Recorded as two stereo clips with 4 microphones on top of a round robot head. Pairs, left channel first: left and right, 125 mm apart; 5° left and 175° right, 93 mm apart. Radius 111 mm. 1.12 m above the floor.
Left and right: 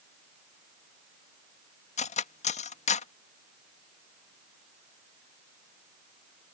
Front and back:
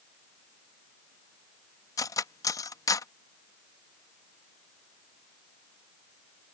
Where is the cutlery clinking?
60° left.